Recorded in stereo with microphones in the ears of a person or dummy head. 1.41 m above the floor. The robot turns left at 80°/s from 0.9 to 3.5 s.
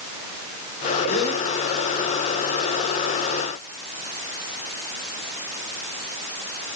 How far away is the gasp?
About 9 m.